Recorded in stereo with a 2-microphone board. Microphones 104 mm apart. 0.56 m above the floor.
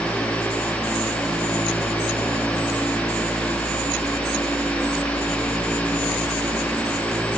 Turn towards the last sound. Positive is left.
No sound to turn to.